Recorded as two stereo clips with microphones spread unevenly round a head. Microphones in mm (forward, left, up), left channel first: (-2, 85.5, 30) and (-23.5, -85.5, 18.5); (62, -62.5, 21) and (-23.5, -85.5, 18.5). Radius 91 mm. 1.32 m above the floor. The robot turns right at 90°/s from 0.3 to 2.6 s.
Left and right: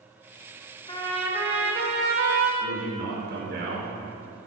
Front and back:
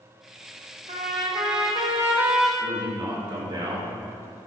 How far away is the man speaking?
About 4 m.